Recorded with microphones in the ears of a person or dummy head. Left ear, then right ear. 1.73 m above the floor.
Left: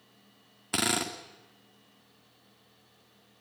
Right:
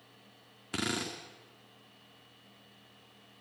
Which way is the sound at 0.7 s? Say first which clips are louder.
Left 6 dB; 20° left (ahead or behind).